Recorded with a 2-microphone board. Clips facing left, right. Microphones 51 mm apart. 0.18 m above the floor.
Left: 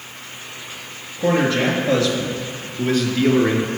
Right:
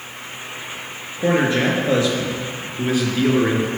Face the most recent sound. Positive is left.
turn(degrees=-5)  # may be behind; listen again after turning